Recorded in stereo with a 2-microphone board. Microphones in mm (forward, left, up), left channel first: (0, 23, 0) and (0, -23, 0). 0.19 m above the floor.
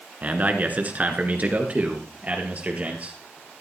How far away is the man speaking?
About 2 m.